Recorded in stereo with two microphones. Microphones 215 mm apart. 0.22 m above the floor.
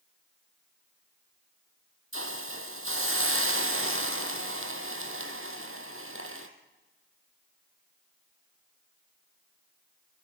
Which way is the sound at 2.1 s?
75° right (ahead or behind).